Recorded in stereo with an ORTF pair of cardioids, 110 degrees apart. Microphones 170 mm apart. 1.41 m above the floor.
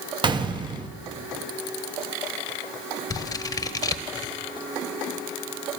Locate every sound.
0.2 s a gunshot: 30° right, 1.1 m
3.1 s scissors: 25° left, 1.1 m